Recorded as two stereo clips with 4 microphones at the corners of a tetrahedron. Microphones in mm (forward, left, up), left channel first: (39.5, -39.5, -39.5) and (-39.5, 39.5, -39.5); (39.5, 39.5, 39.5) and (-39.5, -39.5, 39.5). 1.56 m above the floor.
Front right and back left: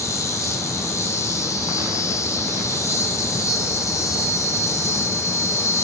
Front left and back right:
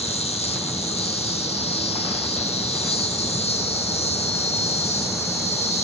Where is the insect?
20° left, 1.9 m.